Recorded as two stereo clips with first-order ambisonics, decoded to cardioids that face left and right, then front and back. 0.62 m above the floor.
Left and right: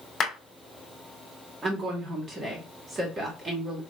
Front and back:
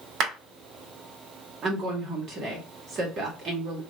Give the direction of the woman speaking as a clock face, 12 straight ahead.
5 o'clock.